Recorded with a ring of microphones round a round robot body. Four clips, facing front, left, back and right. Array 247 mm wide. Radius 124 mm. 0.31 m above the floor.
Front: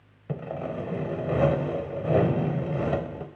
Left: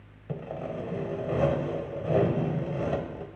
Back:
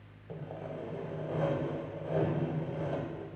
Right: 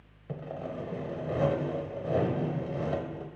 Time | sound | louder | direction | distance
0.3 | sawing | left 3 dB, front 9 dB | 10° left | 0.8 m